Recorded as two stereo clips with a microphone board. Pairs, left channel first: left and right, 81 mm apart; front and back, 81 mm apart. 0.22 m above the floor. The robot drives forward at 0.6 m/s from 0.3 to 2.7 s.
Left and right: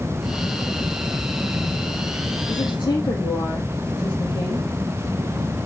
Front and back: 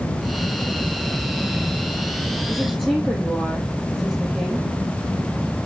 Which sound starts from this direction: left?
A woman speaking, at 2.5 s.